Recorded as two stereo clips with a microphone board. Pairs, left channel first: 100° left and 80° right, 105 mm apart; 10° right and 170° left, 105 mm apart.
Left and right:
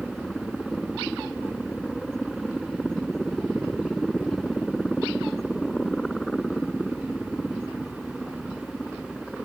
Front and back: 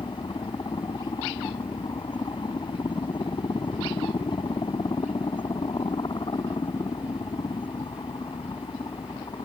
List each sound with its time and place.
0.0 s a helicopter: 15° left